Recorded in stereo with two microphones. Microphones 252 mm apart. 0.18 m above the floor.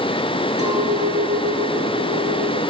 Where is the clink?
70° right (ahead or behind), 1.6 m.